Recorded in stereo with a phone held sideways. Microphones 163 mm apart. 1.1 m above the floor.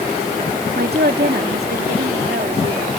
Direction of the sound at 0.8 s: 80° right.